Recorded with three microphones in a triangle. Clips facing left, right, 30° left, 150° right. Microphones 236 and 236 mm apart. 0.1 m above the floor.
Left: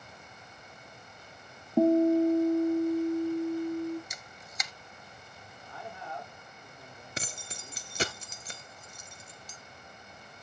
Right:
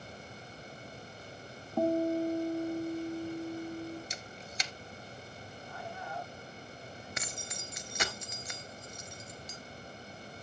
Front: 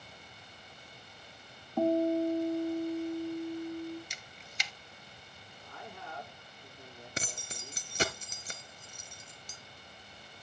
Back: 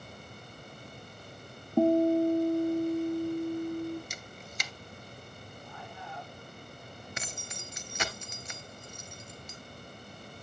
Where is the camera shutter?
140° right, 0.6 m.